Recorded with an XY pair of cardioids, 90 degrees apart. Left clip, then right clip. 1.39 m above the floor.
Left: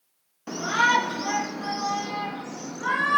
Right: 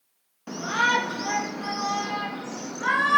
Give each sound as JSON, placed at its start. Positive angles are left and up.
{"t": 0.5, "sound": "a shout", "azimuth_deg": 15, "distance_m": 1.7}